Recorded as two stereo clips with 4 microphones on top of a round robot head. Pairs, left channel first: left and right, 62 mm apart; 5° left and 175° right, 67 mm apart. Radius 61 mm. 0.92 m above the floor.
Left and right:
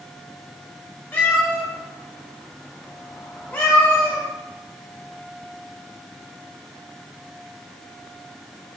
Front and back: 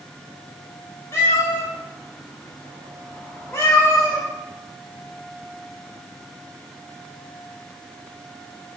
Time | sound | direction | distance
1.1 | a cat meowing | 35° left | 0.7 m